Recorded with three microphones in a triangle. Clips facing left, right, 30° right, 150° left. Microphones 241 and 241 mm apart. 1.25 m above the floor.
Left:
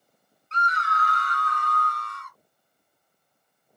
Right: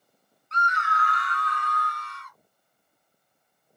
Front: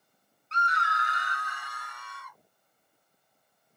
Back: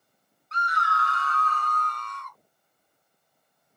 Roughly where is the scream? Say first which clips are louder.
Even, back 2 dB; ahead left.